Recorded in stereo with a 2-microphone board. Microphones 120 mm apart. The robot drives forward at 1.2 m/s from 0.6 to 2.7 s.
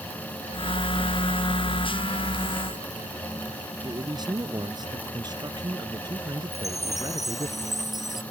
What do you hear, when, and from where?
3.8 s a man speaking: 35° right (ahead or behind)
6.5 s a chime: centre (ahead or behind)